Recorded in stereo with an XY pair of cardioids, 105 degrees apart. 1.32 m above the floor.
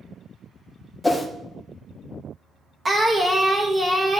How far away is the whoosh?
About 0.8 m.